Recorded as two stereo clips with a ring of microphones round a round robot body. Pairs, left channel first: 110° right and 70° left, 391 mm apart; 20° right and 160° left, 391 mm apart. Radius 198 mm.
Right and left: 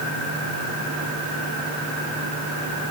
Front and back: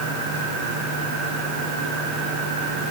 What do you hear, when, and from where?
Only background noise.